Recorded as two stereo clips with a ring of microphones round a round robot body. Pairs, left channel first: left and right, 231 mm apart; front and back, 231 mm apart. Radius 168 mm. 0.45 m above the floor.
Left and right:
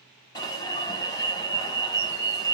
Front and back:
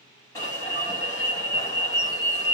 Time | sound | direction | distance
0.3 | an alarm | 50° left | 1.6 m